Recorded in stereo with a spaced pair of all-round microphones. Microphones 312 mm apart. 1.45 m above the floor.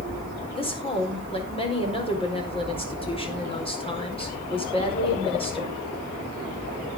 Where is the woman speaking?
15° left (ahead or behind), 4.5 m.